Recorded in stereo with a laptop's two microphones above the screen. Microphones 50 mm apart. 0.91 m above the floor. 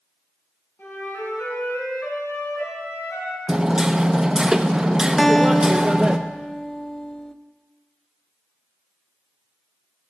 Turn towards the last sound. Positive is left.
turn(degrees=5)  # may be behind; listen again after turning